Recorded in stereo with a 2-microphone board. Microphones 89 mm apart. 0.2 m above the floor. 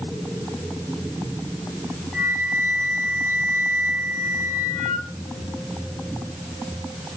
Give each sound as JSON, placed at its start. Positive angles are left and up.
{"t": 2.1, "sound": "a flute", "side_deg": 10, "distance_m": 6.5}